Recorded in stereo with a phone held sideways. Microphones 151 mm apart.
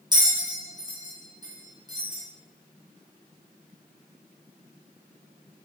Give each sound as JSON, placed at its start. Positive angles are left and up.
{"t": 0.1, "sound": "a bell", "side_deg": -30, "distance_m": 2.5}